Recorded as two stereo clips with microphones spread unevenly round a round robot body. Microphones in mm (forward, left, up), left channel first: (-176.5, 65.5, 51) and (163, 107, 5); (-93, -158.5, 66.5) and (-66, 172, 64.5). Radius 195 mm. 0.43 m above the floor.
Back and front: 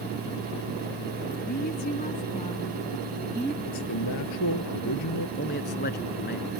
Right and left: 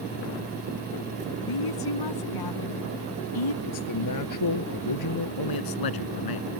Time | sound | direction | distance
1.4 | a woman speaking | 105° right | ?
3.6 | a man speaking | 125° right | ?
5.4 | a man speaking | 105° right | ?